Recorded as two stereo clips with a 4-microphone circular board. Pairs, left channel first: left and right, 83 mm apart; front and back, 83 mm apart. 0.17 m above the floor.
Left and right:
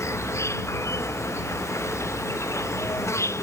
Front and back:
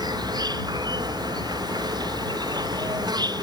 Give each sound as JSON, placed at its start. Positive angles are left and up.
{"t": 0.0, "sound": "an insect", "azimuth_deg": 145}